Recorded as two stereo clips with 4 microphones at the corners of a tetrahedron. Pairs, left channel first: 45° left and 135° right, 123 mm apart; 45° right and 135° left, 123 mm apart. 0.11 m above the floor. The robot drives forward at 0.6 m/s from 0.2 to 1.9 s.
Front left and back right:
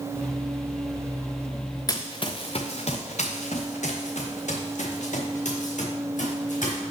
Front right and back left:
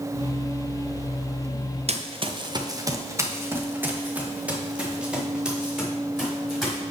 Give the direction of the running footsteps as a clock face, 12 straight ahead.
9 o'clock.